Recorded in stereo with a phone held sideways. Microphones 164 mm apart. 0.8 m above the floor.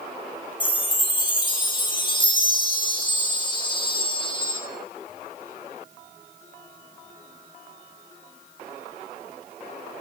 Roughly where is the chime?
Left.